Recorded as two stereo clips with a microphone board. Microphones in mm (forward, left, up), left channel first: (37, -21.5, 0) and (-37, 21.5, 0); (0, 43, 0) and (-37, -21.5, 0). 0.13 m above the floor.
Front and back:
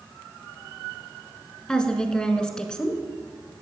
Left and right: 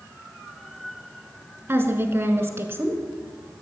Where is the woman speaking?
105° right, 1.2 m.